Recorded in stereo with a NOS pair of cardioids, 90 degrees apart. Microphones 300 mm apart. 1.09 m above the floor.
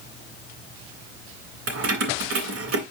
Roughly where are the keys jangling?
Ahead right.